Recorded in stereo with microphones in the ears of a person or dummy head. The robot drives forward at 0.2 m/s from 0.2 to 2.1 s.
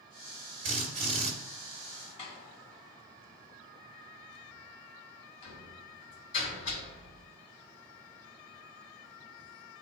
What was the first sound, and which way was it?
A drill, 40° right (ahead or behind).